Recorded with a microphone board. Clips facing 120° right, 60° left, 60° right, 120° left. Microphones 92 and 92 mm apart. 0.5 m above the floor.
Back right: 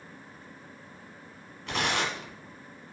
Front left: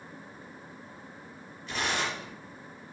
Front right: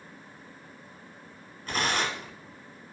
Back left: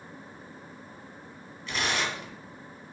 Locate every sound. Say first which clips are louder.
1.7 s tearing paper: back right 2 dB, front right 2 dB; 105° right, 1.4 m